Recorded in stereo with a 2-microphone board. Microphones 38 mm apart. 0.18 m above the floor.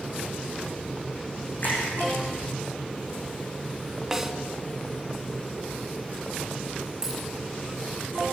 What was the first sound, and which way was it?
A splash, 55° left (ahead or behind).